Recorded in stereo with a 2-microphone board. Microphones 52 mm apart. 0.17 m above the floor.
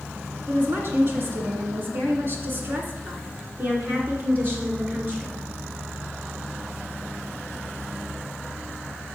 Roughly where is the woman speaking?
Right.